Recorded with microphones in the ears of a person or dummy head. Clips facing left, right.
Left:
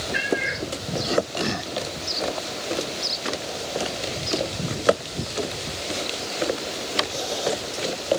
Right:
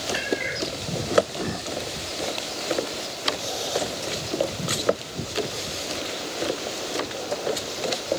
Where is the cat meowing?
5° left (ahead or behind), 1.8 m.